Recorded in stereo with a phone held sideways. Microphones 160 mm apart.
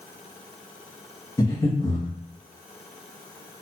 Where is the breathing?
25° left (ahead or behind), 1.0 m.